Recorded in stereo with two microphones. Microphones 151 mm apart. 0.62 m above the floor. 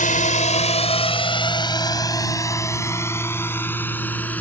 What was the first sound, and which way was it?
A drone, 60° left (ahead or behind).